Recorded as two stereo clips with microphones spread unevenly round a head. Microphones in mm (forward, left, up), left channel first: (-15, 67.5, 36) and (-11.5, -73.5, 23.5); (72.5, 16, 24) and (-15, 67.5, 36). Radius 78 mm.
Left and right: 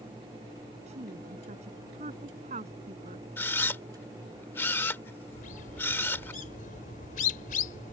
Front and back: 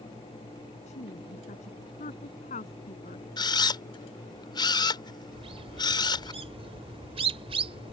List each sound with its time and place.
0.9 s a woman speaking: 40° right
3.4 s a camera shutter: 15° left
5.3 s a bird: 125° left